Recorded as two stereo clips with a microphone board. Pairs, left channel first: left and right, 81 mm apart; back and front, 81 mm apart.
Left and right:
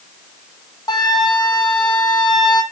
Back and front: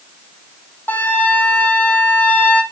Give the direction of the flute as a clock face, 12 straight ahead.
8 o'clock.